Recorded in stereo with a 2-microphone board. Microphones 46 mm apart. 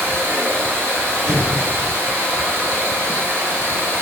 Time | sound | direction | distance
0.0 | running water | 60° right (ahead or behind) | 3 m
1.3 | an explosion | 80° right | 4.5 m